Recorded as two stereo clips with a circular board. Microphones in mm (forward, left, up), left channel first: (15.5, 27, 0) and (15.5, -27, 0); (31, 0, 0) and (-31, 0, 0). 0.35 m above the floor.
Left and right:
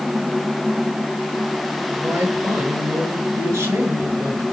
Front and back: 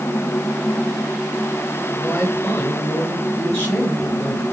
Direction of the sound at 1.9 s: 70° right.